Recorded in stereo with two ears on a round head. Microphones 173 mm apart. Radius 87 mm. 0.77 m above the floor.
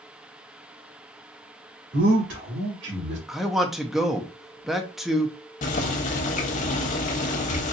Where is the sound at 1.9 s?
70° right (ahead or behind), 2.5 m; by 3.2 s 60° right (ahead or behind), 1.8 m.